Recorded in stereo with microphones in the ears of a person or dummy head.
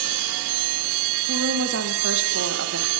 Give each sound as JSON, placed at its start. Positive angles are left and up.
{"t": 1.3, "sound": "a woman speaking", "side_deg": -65, "distance_m": 4.0}